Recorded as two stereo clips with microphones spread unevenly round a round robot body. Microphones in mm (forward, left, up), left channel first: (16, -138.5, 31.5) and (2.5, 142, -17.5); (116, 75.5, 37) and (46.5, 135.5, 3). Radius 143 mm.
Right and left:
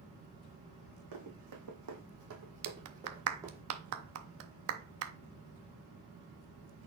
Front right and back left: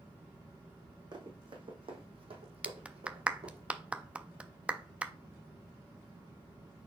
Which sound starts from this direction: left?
Running footsteps, at 1.1 s.